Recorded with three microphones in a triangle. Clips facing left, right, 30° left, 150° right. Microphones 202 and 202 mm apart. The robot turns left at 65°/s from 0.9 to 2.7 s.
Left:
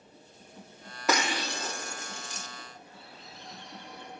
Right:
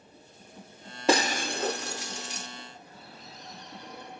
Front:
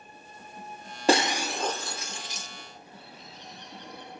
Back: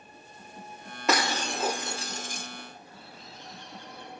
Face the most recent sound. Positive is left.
turn(degrees=-40)